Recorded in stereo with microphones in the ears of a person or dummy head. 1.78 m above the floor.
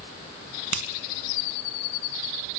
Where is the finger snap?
75° right (ahead or behind), 2.5 m.